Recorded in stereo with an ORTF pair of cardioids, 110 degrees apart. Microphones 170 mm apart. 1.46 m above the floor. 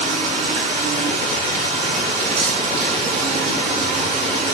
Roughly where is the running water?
Ahead right.